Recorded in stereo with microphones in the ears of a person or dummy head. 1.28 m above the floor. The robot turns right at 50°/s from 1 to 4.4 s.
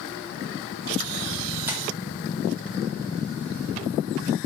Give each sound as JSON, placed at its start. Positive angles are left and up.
{"t": 1.7, "sound": "tapping", "side_deg": -10, "distance_m": 0.7}